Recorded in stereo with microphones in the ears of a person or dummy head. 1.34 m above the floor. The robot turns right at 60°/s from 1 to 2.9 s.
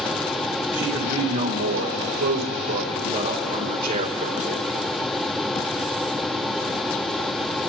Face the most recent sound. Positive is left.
turn(degrees=-30)